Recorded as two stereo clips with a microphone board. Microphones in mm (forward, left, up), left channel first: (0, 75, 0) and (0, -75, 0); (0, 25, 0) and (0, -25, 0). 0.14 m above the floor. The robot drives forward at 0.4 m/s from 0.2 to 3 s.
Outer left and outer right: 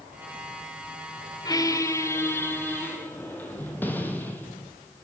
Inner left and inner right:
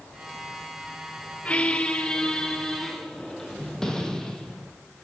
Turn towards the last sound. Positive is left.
turn(degrees=10)  # may be behind; listen again after turning